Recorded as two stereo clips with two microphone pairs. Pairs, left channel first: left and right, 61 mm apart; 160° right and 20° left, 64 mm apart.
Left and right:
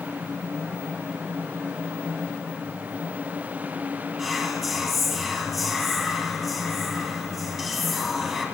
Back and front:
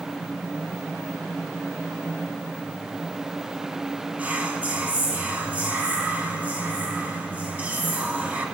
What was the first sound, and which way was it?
Whispering, 5° right.